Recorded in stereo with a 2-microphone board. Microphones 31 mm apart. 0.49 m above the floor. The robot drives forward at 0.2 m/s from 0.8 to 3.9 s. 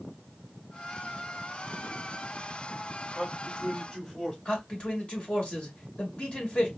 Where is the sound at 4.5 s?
40° left (ahead or behind), 2 m.